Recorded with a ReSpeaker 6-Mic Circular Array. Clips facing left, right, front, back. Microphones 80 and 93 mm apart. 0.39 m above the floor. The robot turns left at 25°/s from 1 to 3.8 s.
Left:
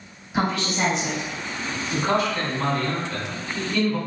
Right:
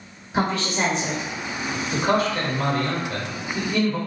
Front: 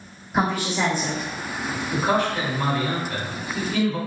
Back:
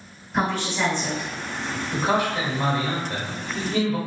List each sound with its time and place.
0.3 s a woman speaking: 75° right, 1.1 m; by 1.3 s 80° right, 1.1 m
1.9 s a man speaking: 105° right, 1.2 m; by 4.0 s 150° right, 1.2 m